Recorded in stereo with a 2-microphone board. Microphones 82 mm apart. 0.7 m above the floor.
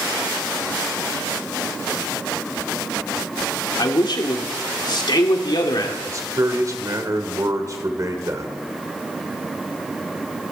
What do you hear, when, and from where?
3.8 s a man speaking: 65° left (ahead or behind), 1.9 m
6.1 s a man speaking: 45° right (ahead or behind), 1.9 m